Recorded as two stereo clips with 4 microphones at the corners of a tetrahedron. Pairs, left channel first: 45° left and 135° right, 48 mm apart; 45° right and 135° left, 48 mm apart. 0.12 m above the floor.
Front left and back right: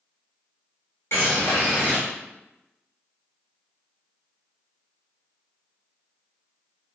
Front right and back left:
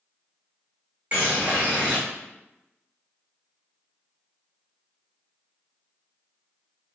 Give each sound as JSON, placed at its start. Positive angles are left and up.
{"t": 1.1, "sound": "a bird", "azimuth_deg": 70, "distance_m": 1.8}